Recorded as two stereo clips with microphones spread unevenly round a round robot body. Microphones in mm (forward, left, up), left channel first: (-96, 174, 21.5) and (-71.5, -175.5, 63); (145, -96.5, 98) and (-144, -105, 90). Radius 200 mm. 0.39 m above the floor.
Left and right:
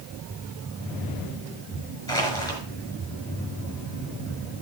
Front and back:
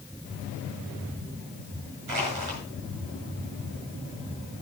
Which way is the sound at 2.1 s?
175° left.